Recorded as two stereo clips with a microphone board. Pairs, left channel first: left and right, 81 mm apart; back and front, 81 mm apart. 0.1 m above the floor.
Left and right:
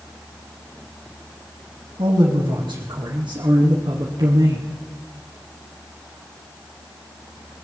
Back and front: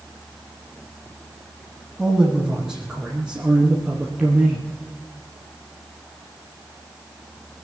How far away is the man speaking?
About 4.5 m.